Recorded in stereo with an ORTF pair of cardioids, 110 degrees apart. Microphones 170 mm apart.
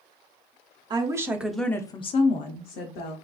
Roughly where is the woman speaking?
Ahead right.